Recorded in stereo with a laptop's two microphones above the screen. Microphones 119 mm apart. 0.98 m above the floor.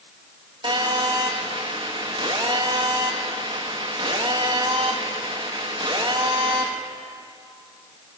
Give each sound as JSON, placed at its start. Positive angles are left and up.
{"t": 0.6, "sound": "a phone buzzing", "side_deg": -40, "distance_m": 1.4}